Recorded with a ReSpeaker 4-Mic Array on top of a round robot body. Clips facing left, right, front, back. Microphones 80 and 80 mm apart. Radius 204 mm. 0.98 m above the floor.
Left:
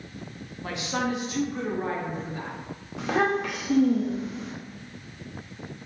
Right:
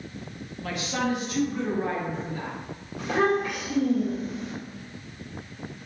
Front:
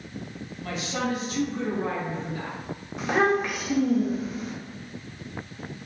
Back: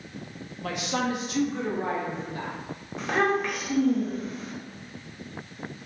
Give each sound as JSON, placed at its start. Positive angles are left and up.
{"t": 0.6, "sound": "a woman speaking", "azimuth_deg": 160, "distance_m": 0.7}
{"t": 3.0, "sound": "a child speaking", "azimuth_deg": 85, "distance_m": 0.7}